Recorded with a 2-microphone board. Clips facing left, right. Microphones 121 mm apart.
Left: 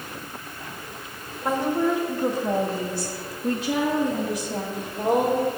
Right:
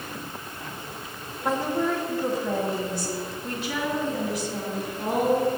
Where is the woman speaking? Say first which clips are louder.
Left 2 dB; centre (ahead or behind), 1.6 m; by 5.5 s 70° left (ahead or behind), 3 m.